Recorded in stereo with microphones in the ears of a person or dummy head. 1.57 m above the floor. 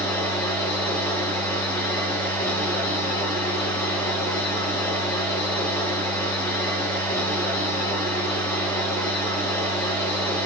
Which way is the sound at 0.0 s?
20° left (ahead or behind).